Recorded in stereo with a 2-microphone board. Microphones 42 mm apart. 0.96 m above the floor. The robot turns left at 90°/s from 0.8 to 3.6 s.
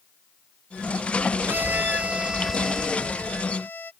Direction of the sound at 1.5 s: 80° right.